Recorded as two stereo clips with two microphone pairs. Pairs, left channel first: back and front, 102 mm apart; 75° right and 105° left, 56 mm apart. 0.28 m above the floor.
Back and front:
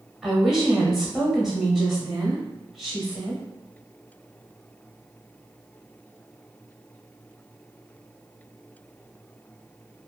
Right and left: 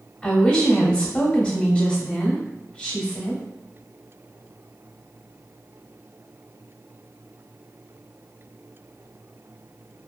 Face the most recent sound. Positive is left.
turn(degrees=-80)